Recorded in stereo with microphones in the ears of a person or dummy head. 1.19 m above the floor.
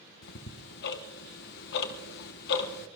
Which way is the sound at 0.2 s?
60° left (ahead or behind).